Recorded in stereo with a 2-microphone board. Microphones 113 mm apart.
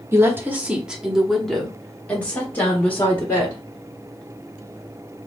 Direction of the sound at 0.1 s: 25° right (ahead or behind).